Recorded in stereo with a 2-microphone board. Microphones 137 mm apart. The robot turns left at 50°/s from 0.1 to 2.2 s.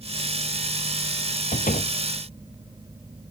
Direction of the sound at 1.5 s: 80° left.